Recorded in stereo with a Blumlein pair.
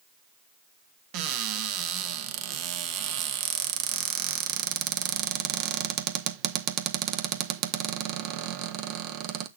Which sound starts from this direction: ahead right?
A cupboard door, at 1.1 s.